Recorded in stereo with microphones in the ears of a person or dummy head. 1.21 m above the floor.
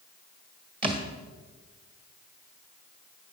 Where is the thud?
35° right (ahead or behind), 1.6 m.